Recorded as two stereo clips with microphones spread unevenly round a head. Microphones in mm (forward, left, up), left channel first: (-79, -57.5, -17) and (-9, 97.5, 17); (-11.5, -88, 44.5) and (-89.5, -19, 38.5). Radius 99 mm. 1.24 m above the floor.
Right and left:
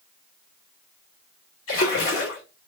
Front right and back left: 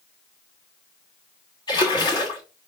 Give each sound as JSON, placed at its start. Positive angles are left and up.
{"t": 1.7, "sound": "a splash", "azimuth_deg": -90, "distance_m": 1.8}